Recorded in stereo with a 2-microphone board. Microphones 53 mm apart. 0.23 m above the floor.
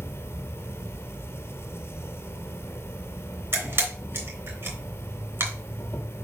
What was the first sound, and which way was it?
An insect, 45° left (ahead or behind).